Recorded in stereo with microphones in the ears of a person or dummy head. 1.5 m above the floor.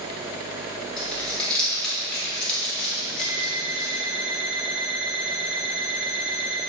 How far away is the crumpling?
About 4.5 m.